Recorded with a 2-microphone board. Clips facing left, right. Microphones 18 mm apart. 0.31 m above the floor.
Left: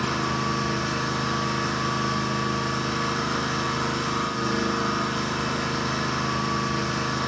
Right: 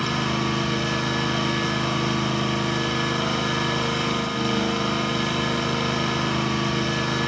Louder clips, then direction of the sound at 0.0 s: Right 1 dB; 80° right.